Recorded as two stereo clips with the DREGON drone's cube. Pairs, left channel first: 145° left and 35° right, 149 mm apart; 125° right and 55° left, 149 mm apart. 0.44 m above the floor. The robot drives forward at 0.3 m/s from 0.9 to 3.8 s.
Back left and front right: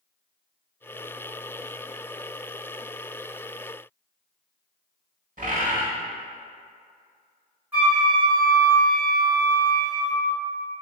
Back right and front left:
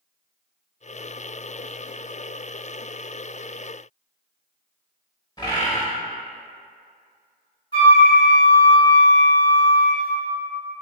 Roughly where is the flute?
Right.